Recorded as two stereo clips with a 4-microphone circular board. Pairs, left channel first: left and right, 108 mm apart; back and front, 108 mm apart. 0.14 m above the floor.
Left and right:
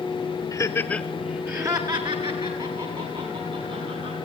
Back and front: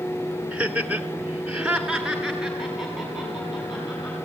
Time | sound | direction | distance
0.5 | laughter | 65° left | 1.2 m